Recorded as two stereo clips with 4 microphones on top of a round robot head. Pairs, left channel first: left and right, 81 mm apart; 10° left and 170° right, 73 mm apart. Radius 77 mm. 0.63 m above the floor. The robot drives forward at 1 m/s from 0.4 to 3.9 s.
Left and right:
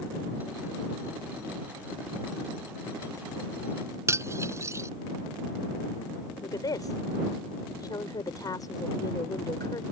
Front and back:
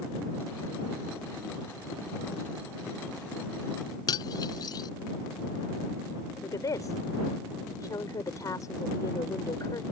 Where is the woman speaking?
50° left.